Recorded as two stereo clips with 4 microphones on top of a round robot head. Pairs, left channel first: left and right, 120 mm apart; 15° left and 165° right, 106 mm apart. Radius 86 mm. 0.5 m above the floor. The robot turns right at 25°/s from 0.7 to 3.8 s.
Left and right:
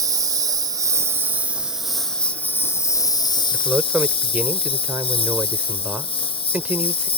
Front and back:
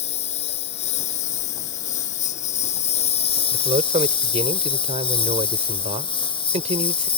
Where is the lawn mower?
30° right; by 7.2 s 50° left.